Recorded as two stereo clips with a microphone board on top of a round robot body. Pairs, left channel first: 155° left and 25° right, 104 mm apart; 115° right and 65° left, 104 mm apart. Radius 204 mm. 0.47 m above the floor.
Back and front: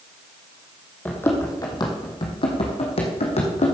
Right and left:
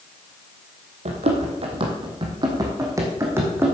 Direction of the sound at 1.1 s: 85° left.